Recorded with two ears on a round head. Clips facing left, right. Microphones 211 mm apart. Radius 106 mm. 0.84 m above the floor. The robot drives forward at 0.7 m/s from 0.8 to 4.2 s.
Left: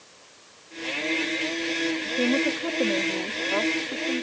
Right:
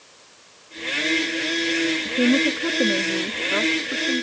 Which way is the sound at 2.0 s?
35° right (ahead or behind).